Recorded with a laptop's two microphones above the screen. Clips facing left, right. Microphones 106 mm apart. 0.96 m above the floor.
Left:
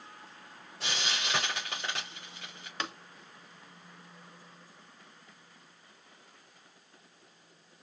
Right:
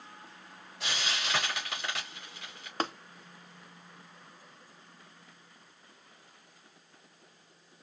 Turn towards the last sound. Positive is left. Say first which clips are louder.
# right 5 dB
turn(degrees=-40)  # may be behind; listen again after turning